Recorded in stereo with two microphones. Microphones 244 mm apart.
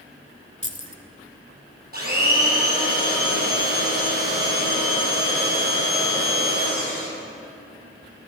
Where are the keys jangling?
30° left (ahead or behind), 0.9 m.